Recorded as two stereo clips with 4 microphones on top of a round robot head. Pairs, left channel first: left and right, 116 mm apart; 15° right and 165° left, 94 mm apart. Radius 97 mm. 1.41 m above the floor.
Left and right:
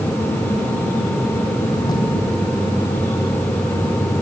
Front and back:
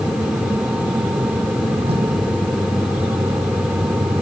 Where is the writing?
145° left, 7.5 m.